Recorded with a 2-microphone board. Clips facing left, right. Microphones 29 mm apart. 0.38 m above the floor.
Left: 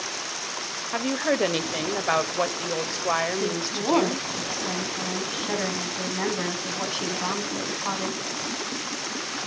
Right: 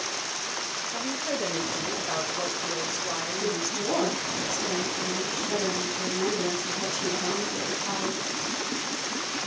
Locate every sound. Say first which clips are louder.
0.9 s a woman speaking: left 8 dB; 45° left (ahead or behind), 1.2 m
3.4 s a woman speaking: left 2 dB; 40° left (ahead or behind), 4 m